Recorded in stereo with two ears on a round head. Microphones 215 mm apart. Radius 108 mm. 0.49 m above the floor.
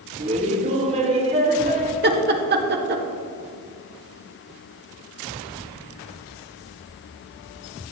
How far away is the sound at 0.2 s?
About 1.0 m.